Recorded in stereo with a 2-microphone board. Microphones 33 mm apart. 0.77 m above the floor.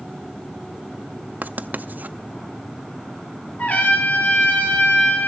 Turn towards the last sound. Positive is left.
turn(degrees=50)  # may be behind; listen again after turning